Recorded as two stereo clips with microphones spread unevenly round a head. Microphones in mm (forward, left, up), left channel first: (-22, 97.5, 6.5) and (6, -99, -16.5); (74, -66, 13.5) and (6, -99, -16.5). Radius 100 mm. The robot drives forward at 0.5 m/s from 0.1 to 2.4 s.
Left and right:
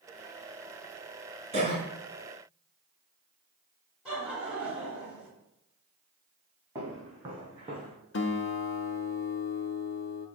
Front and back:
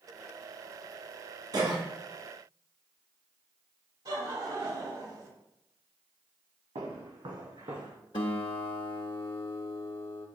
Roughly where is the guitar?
Ahead left.